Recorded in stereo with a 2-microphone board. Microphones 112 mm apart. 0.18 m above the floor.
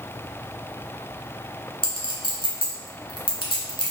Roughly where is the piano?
No piano in this recording.